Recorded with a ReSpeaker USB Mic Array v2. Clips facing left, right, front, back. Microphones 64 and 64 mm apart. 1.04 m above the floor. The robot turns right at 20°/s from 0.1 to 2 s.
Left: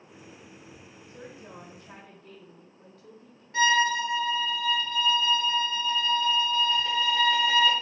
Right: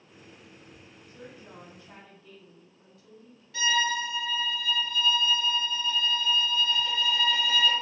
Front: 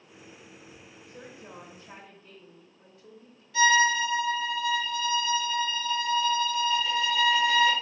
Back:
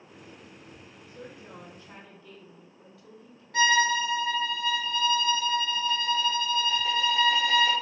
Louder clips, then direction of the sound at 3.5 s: Left 4 dB, front 1 dB; 140° left.